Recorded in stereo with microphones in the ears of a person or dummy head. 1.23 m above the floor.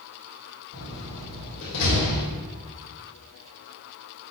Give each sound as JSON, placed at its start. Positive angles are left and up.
{"t": 0.7, "sound": "a door slam", "side_deg": 80, "distance_m": 3.0}